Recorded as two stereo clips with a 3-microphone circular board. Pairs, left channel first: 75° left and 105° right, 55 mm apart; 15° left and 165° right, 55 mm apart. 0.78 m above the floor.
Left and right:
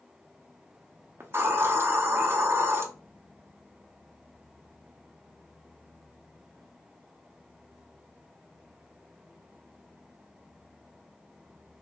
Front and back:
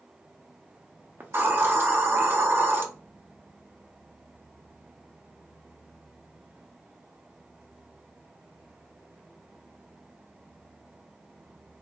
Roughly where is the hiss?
Behind right.